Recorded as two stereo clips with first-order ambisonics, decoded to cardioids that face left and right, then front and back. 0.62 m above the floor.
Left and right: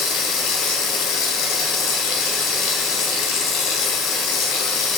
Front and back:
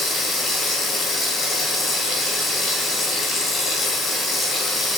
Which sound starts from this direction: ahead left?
Running water, at 0.0 s.